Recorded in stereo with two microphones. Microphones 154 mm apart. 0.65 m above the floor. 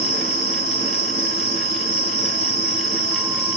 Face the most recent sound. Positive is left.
turn(degrees=55)  # may be behind; listen again after turning